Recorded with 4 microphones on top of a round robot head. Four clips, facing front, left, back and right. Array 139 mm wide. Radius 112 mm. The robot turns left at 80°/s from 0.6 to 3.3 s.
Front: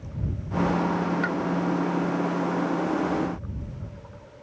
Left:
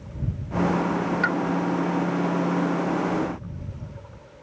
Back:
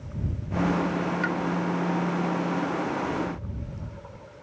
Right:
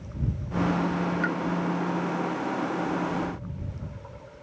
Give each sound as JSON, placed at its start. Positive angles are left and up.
{"t": 1.2, "sound": "a pop", "azimuth_deg": 85}